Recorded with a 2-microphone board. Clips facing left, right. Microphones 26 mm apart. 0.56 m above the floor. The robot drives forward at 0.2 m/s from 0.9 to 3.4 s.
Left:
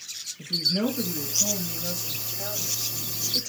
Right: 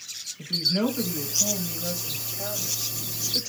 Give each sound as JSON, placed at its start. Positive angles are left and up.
{"t": 0.4, "sound": "a woman speaking", "side_deg": -35, "distance_m": 2.5}